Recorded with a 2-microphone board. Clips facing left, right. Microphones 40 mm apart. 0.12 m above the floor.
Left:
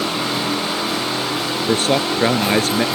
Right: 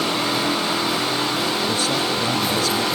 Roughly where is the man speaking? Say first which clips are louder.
Left 4 dB; left.